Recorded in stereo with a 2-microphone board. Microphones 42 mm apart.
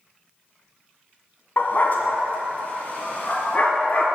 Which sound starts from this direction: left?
A dog barking, at 1.6 s.